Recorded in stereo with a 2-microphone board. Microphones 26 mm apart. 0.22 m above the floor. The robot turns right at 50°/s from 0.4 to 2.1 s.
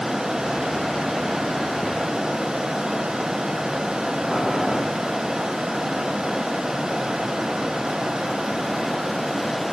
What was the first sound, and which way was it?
Boiling, 25° left (ahead or behind).